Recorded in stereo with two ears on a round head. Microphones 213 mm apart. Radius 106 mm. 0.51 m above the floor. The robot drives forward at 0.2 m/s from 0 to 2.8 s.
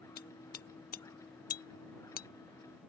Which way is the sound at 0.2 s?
40° left (ahead or behind).